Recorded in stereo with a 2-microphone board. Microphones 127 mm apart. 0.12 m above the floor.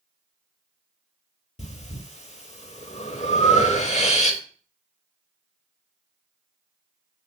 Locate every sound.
1.6 s breathing: 65° left (ahead or behind), 0.5 m